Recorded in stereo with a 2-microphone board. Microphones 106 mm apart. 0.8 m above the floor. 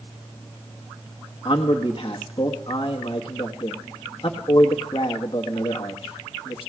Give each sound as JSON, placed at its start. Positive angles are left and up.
{"t": 1.4, "sound": "a man speaking", "side_deg": 50, "distance_m": 1.2}